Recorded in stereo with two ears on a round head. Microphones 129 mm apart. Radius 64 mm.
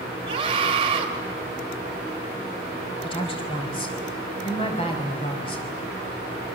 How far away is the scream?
About 3.5 m.